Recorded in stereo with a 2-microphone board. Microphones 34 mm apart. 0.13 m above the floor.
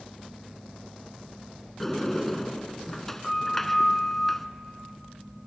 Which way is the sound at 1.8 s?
10° left (ahead or behind).